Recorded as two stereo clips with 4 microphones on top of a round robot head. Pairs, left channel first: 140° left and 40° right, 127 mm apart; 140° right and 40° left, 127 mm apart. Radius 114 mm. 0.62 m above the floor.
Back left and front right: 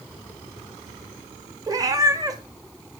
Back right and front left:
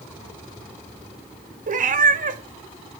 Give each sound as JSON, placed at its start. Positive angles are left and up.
{"t": 1.7, "sound": "a cat meowing", "azimuth_deg": 25, "distance_m": 1.0}